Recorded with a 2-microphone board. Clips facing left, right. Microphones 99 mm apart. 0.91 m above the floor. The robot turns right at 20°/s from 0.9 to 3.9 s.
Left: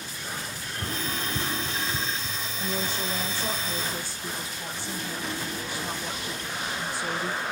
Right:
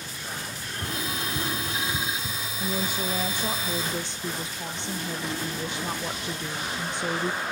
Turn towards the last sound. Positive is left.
turn(degrees=-20)  # may be behind; listen again after turning